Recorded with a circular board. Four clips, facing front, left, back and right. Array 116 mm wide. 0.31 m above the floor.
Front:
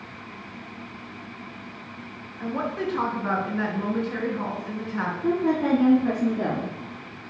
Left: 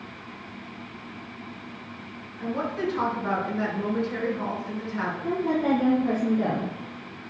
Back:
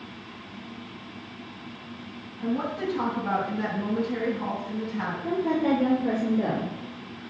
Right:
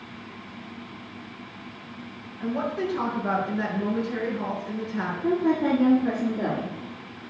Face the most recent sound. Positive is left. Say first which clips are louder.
# right 2 dB, front 2 dB
turn(degrees=-25)